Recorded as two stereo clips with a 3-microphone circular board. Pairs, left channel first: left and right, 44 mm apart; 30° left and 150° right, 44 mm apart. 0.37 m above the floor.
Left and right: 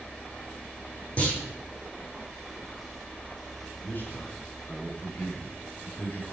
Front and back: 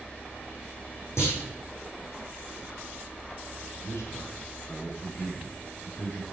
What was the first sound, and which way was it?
A clunk, 30° left.